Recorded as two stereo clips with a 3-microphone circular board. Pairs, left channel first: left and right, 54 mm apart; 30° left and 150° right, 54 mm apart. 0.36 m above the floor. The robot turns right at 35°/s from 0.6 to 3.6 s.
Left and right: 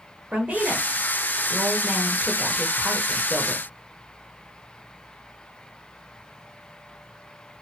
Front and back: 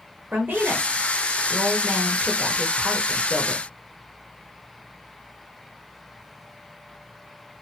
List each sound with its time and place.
0.3 s a woman speaking: 135° right, 0.9 m; by 3.6 s 30° right, 0.9 m